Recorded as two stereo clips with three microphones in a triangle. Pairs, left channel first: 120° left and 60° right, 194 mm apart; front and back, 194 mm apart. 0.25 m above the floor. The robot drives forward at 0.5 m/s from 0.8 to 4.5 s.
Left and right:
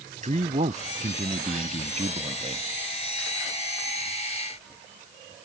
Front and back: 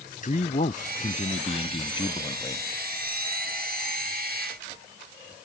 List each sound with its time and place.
0.2 s a man speaking: 25° right; by 2.6 s 50° right